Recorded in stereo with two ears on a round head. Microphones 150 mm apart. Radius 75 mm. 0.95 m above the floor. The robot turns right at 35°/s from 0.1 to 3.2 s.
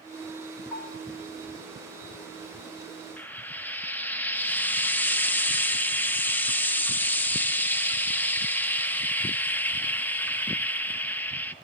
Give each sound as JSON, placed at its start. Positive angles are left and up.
{"t": 0.7, "sound": "a bell", "side_deg": 10, "distance_m": 3.0}
{"t": 3.2, "sound": "frying", "side_deg": 10, "distance_m": 0.5}